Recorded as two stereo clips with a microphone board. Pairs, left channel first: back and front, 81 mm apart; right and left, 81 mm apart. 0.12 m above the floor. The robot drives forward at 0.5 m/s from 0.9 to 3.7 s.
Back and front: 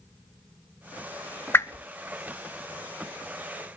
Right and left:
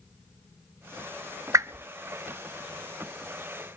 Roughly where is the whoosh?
Behind left.